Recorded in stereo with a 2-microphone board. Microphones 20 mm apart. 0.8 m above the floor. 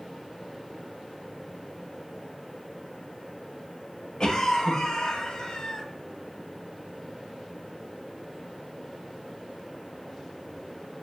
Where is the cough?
40° left (ahead or behind), 0.7 m.